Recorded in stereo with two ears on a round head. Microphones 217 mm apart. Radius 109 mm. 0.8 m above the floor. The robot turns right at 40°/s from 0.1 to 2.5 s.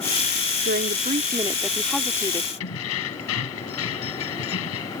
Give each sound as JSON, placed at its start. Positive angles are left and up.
{"t": 0.7, "sound": "a woman speaking", "azimuth_deg": -50}
{"t": 2.6, "sound": "keys jangling", "side_deg": 65}